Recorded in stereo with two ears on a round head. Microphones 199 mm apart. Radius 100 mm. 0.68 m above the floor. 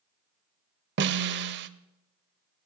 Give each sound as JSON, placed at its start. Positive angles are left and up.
{"t": 1.0, "sound": "a snare drum", "side_deg": -50, "distance_m": 0.6}